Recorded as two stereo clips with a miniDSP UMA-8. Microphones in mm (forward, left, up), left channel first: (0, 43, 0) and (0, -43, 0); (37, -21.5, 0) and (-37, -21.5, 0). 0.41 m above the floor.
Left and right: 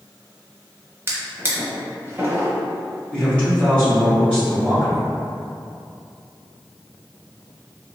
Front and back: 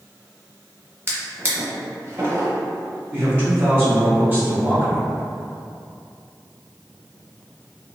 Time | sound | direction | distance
1.1 | a drawer | 135° right | 0.7 m
3.1 | a man speaking | 155° left | 1.2 m